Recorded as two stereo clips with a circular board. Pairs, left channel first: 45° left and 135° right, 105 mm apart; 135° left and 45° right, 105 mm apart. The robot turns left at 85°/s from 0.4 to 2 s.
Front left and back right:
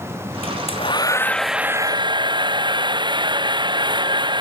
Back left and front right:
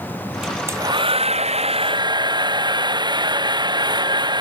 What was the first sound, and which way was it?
A hair dryer, 40° left.